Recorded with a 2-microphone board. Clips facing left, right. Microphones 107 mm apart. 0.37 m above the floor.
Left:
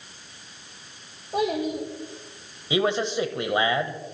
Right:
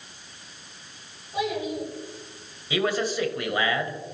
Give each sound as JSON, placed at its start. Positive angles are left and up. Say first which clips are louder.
{"t": 1.3, "sound": "a child speaking", "louder": "left 3 dB", "side_deg": 55, "distance_m": 7.0}
{"t": 2.7, "sound": "a man speaking", "louder": "left 2 dB", "side_deg": 25, "distance_m": 1.8}